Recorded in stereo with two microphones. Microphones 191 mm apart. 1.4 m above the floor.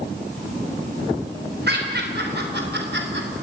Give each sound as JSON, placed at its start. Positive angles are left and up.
{"t": 1.7, "sound": "laughter", "side_deg": -60, "distance_m": 5.0}